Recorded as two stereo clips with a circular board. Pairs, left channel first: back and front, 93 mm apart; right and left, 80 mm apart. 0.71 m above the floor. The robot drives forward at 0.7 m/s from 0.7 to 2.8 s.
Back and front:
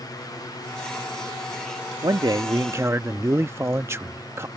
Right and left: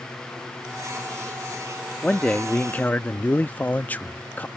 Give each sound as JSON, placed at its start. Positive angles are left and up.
{"t": 2.0, "sound": "a man speaking", "azimuth_deg": -15}